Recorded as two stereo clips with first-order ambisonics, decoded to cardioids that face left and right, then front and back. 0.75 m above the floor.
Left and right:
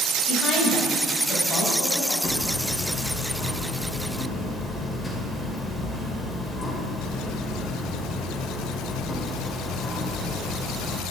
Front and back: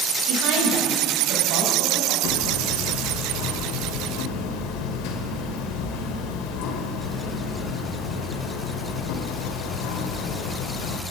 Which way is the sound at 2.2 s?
15° left.